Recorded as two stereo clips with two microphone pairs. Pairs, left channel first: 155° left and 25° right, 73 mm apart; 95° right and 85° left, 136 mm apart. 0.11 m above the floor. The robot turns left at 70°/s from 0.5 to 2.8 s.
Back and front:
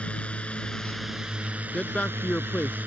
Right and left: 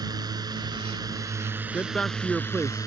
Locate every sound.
0.0 s a drone: 100° left; by 2.9 s 60° right
1.7 s a man speaking: 155° right; by 2.9 s 130° left